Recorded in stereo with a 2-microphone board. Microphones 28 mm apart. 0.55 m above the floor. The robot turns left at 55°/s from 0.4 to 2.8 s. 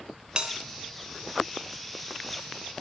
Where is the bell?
35° right (ahead or behind), 1.2 m; by 0.5 s 30° right (ahead or behind), 1.2 m.